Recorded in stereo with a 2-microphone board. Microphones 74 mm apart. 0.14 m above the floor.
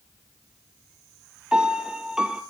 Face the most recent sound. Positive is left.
turn(degrees=-10)  # may be behind; listen again after turning